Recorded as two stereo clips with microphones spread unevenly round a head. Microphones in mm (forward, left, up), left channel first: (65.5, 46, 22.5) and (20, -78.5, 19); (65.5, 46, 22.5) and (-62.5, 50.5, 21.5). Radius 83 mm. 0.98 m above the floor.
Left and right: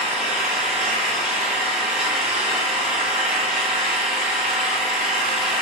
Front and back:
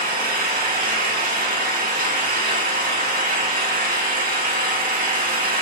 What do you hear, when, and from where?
0.0 s an engine running: 165° left, 2 m